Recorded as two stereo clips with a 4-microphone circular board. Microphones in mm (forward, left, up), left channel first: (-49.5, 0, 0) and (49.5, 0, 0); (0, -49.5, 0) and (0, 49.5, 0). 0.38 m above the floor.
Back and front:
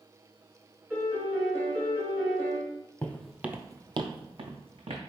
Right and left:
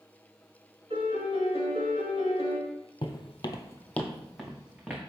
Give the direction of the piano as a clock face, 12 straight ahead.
10 o'clock.